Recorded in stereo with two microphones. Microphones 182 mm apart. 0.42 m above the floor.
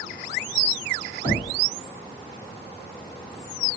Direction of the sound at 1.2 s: 25° right (ahead or behind).